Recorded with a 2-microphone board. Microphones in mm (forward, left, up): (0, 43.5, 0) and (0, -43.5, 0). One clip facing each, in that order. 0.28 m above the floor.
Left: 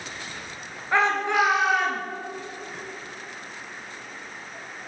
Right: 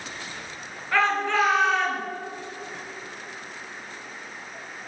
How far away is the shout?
About 4.5 m.